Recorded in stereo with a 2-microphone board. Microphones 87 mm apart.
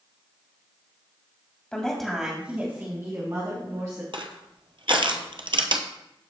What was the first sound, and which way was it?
A woman speaking, 15° left (ahead or behind).